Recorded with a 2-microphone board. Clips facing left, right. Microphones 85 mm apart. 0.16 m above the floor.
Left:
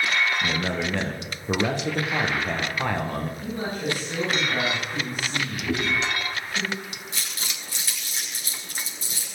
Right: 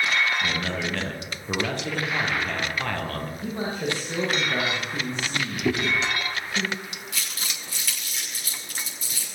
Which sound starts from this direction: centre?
A man speaking, at 0.4 s.